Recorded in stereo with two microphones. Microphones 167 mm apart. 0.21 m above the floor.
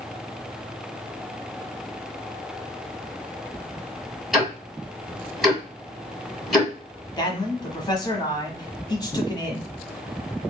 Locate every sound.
4.3 s ticking: centre (ahead or behind), 1.8 m
7.2 s a man speaking: 25° left (ahead or behind), 1.1 m